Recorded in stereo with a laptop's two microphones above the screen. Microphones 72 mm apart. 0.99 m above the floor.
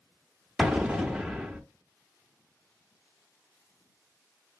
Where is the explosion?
10° right (ahead or behind), 0.7 m.